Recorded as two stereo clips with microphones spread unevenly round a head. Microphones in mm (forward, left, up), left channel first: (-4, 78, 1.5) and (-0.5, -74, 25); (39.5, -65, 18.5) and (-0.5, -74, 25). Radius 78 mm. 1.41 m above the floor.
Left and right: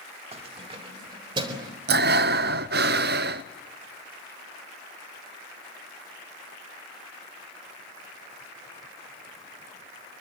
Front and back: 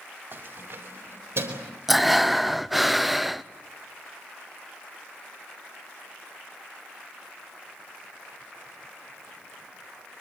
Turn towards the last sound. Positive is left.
turn(degrees=-75)